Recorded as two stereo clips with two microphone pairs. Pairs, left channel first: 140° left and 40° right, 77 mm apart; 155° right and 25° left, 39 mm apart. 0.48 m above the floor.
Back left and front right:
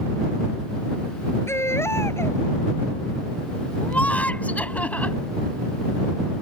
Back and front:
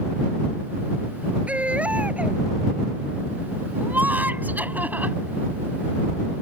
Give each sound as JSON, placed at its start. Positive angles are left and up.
{"t": 1.5, "sound": "a baby crying", "azimuth_deg": 80}
{"t": 3.8, "sound": "laughter", "azimuth_deg": 65}